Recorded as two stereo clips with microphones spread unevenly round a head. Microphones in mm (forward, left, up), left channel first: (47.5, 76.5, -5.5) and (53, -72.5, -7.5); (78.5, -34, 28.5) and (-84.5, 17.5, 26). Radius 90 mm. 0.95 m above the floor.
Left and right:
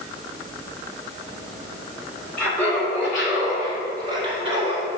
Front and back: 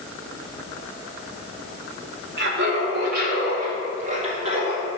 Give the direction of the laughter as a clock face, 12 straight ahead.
6 o'clock.